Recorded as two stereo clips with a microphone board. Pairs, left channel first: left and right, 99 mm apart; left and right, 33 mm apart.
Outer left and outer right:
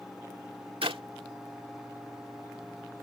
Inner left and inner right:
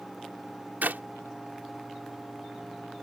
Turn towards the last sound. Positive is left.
turn(degrees=-80)